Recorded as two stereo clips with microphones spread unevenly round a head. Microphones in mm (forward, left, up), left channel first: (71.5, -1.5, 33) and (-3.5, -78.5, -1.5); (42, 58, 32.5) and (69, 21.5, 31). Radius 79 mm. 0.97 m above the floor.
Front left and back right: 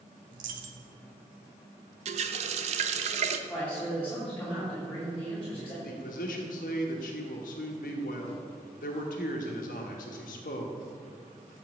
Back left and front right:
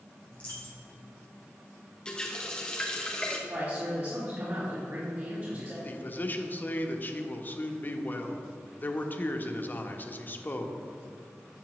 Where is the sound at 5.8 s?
80° left, 1.0 m.